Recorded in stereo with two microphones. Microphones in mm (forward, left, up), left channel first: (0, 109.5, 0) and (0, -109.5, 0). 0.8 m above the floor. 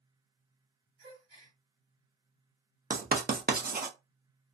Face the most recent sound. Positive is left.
turn(degrees=-40)  # may be behind; listen again after turning